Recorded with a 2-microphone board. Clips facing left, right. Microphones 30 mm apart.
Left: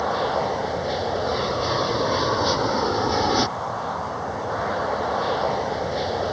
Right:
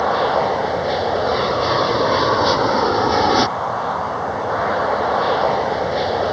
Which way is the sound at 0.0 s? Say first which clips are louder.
Right 6 dB; 20° right (ahead or behind).